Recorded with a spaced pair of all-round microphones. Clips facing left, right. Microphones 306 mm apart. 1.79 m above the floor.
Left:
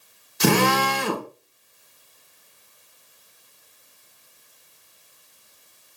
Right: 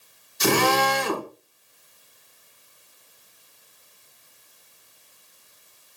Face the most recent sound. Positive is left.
turn(degrees=65)  # may be behind; listen again after turning